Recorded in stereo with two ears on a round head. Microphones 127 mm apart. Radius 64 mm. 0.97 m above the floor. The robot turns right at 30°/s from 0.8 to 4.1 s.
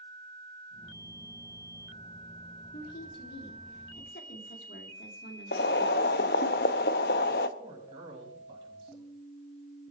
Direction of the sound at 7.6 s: 35° right (ahead or behind).